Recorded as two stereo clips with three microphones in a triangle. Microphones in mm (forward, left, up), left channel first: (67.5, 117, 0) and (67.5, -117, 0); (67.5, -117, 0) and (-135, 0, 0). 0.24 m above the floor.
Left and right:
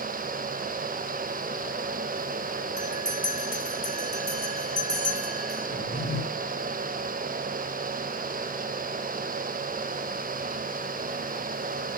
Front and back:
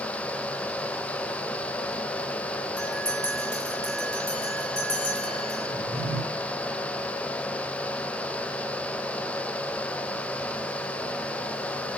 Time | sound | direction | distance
2.8 | a bell | 25° right | 4 m
5.7 | a drawer | 120° left | 3 m